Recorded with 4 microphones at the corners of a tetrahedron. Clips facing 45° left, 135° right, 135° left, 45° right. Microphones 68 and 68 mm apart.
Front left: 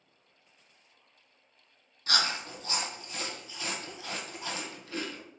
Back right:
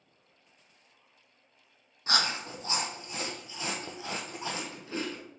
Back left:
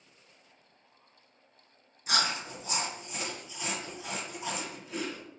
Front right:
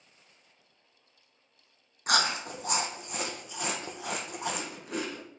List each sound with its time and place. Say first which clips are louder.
2.1 s chewing: back right 1 dB, front right 3 dB; 70° right, 1.0 m